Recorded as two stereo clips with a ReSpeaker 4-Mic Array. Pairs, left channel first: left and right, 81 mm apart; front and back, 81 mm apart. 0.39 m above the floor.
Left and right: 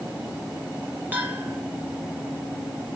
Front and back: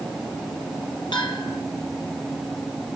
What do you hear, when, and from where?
1.1 s a bell: 20° right, 4.5 m